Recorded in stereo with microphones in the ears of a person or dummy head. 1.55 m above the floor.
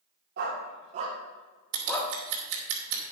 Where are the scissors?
70° right (ahead or behind), 2.5 m.